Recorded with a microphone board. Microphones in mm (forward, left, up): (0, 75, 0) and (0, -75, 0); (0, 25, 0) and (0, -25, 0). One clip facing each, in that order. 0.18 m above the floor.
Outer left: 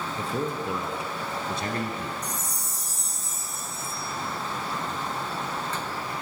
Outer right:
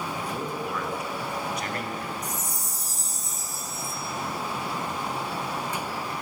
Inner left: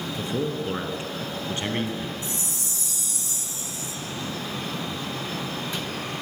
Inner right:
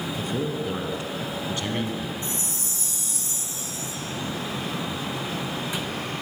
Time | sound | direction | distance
0.2 | a man speaking | 25° left (ahead or behind) | 2 m
2.2 | a chime | 40° right (ahead or behind) | 1.2 m